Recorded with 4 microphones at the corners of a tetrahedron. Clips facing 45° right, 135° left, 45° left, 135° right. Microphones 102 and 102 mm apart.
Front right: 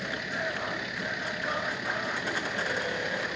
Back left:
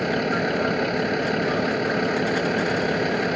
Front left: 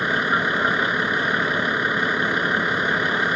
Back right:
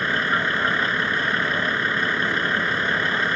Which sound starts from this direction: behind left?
A vehicle, at 0.0 s.